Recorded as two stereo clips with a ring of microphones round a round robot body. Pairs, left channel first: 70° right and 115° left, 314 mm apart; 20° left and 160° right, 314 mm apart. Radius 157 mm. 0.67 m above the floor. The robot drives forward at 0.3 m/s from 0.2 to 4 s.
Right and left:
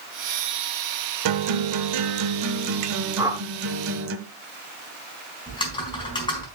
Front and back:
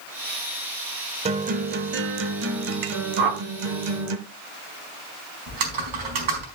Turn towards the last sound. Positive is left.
turn(degrees=-145)